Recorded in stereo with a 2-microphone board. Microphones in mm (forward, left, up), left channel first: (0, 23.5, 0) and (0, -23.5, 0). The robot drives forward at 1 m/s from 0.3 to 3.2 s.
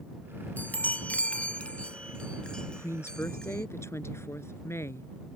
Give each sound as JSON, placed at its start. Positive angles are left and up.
{"t": 0.6, "sound": "a chime", "side_deg": 40}
{"t": 2.7, "sound": "a woman speaking", "side_deg": 70}